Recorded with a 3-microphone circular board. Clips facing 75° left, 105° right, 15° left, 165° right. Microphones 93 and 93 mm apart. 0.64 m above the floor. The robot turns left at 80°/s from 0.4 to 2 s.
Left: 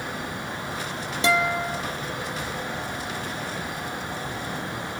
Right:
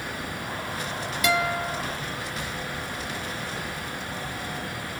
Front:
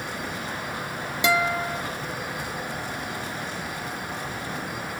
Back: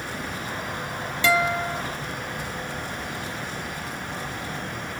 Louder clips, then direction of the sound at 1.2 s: Left 2 dB, back 1 dB; 65° left.